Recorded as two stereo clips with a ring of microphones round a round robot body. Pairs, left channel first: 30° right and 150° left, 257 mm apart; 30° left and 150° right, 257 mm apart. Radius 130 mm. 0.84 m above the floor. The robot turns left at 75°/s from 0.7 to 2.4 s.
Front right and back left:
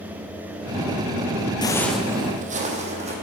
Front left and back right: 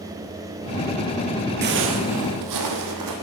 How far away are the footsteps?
About 1.4 m.